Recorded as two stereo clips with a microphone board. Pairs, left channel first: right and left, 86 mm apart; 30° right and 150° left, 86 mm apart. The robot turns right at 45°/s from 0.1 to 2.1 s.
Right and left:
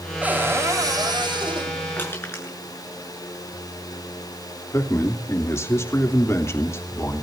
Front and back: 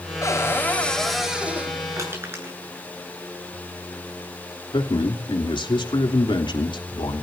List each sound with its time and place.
0.2 s a cupboard door: 20° left, 4.5 m; by 1.8 s 90° left, 4.5 m
2.0 s crushing: 155° right, 8.5 m; by 2.6 s 150° right, 8.5 m
4.7 s a man speaking: 35° right, 3 m